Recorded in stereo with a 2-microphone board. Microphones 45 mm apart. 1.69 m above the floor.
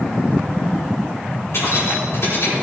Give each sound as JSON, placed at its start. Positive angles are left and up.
{"t": 1.5, "sound": "keys jangling", "side_deg": 70, "distance_m": 4.0}